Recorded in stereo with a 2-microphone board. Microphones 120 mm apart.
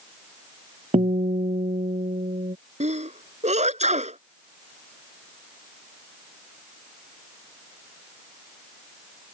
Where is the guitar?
75° right (ahead or behind).